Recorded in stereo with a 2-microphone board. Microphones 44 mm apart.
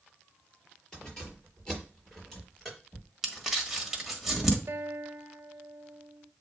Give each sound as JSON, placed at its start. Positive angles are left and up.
{"t": 0.9, "sound": "keys jangling", "side_deg": 20, "distance_m": 5.0}
{"t": 3.2, "sound": "crumpling", "side_deg": -5, "distance_m": 1.5}
{"t": 4.7, "sound": "a guitar", "side_deg": -55, "distance_m": 0.8}